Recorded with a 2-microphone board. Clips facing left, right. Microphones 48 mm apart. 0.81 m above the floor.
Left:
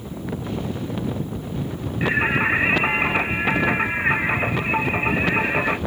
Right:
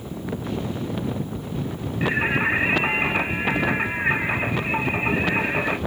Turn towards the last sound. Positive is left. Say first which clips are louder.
# left 2 dB
turn(degrees=25)  # may be behind; listen again after turning